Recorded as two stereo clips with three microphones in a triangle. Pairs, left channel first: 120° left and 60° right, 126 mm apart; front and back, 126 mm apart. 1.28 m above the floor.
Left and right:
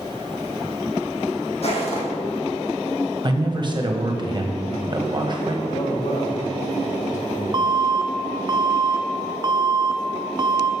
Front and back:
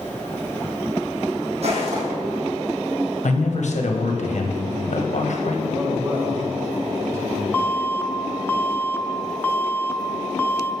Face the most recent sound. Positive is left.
turn(degrees=-65)